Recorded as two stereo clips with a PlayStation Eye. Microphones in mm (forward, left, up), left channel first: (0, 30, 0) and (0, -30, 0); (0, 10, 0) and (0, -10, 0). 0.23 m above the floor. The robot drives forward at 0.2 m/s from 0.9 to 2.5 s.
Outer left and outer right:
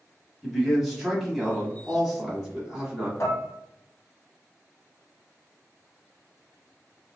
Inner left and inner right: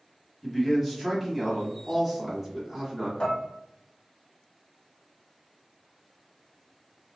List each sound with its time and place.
0.4 s a man speaking: 5° right (ahead or behind), 1.2 m; by 3.1 s centre (ahead or behind), 1.4 m
3.2 s dishes clattering: 55° left (ahead or behind), 1.0 m